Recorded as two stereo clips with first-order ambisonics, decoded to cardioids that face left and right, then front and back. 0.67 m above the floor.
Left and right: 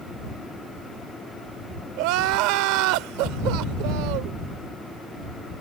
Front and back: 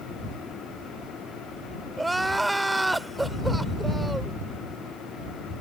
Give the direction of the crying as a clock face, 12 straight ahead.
3 o'clock.